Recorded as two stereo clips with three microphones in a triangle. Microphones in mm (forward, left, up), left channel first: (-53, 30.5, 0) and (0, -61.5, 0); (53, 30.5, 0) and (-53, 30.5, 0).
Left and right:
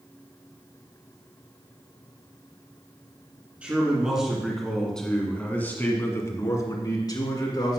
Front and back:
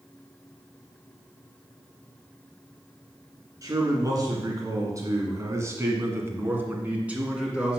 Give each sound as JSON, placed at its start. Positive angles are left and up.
{"t": 3.6, "sound": "a man speaking", "azimuth_deg": -135, "distance_m": 2.5}